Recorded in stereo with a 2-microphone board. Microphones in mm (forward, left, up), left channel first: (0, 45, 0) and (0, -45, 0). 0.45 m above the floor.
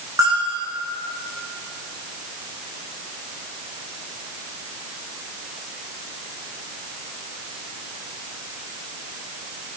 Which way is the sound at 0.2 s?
40° right (ahead or behind).